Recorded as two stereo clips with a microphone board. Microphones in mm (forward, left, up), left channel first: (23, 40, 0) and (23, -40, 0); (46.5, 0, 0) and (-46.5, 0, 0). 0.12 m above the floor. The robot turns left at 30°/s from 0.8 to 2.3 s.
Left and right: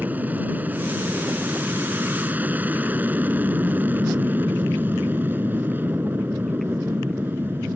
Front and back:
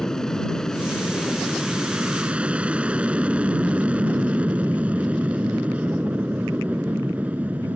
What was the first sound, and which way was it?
An aircraft, 75° right.